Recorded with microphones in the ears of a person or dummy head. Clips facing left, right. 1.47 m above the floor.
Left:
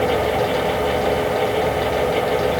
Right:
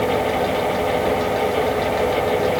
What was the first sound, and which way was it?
Only background noise.